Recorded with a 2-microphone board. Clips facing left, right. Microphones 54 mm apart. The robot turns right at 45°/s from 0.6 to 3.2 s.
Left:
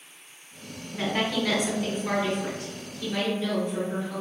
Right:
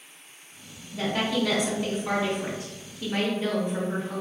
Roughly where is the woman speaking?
Behind.